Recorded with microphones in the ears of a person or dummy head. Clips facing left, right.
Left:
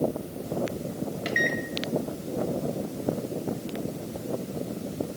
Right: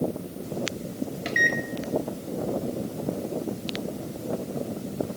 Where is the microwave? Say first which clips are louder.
Left 1 dB; centre (ahead or behind), 1.7 m.